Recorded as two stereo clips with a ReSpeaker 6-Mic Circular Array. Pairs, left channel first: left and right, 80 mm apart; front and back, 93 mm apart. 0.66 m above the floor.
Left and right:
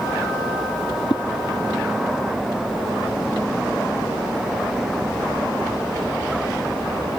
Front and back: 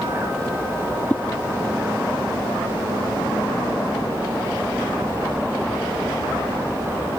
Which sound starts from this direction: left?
A whoosh, at 1.1 s.